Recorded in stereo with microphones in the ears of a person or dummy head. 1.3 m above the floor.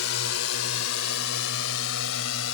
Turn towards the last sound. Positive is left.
turn(degrees=85)